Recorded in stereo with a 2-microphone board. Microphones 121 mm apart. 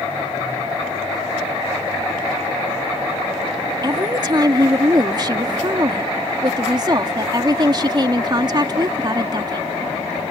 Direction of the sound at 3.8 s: 35° right (ahead or behind).